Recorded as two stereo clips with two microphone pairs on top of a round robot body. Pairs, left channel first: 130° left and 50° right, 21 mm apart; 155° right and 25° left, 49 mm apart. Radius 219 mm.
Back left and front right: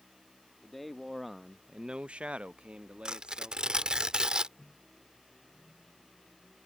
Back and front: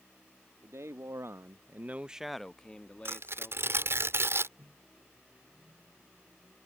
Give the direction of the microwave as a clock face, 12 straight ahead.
9 o'clock.